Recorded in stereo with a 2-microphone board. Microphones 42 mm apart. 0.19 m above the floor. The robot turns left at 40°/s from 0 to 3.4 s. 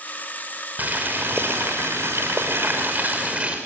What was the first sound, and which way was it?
Boiling, 40° right.